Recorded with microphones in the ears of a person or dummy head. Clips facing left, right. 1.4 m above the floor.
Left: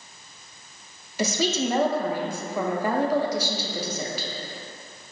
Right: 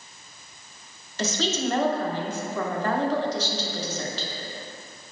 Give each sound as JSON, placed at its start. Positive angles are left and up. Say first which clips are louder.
{"t": 1.2, "sound": "a woman speaking", "louder": "left 2 dB", "side_deg": 10, "distance_m": 0.5}